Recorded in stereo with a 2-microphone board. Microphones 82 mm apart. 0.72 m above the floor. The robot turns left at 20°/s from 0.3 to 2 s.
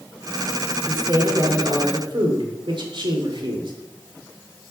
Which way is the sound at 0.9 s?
55° right (ahead or behind).